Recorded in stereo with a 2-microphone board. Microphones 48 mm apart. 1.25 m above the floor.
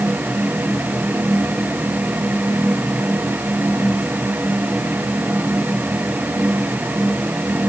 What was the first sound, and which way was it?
Only background noise.